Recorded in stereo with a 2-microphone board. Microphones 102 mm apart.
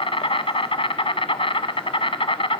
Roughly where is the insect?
Left.